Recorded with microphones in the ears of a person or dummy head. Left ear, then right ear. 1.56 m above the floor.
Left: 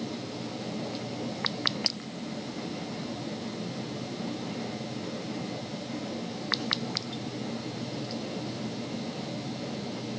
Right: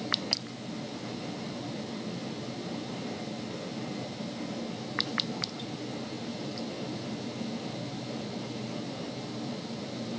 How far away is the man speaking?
No man speaking in this recording.